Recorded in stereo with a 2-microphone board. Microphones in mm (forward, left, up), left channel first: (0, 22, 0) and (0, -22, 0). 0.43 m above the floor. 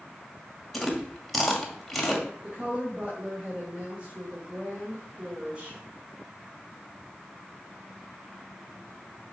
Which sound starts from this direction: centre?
Chewing, at 0.7 s.